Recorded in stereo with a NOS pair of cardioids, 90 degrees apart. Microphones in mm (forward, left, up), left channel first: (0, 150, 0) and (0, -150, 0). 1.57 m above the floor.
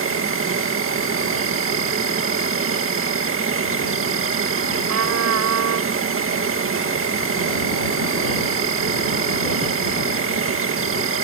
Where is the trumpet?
60° right.